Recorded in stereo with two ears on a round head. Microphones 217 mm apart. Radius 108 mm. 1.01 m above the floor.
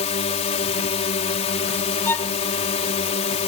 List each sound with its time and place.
0.0 s a drone: 30° left (ahead or behind)
2.0 s a violin: 10° left (ahead or behind)